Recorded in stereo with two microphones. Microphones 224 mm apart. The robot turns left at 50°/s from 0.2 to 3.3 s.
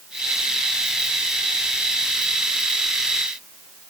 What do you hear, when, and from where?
Only background noise.